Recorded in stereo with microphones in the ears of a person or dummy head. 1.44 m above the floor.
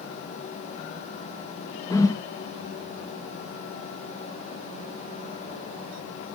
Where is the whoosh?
20° left (ahead or behind), 1.1 m.